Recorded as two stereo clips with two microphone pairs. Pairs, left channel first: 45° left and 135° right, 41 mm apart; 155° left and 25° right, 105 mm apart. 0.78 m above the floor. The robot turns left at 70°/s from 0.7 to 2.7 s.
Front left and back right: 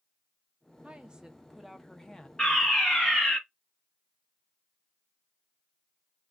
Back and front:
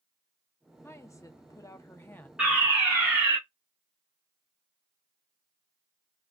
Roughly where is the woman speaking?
Behind.